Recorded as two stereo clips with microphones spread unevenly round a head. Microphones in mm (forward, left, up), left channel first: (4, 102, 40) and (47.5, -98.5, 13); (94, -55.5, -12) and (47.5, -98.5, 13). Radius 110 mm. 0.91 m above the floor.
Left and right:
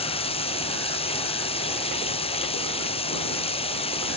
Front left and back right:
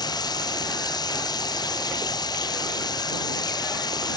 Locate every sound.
0.0 s running water: 40° left